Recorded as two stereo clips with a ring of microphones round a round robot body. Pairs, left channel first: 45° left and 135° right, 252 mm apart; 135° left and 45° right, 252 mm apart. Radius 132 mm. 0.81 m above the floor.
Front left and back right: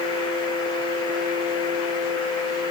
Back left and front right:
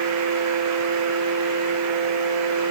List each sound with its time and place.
Only background noise.